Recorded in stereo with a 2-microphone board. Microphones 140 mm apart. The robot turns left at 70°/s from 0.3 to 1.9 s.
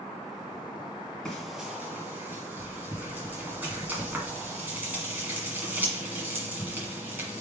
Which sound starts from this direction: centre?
Frying, at 1.2 s.